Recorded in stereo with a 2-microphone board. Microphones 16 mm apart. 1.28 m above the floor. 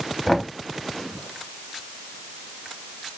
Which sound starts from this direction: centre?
Knocking, at 0.3 s.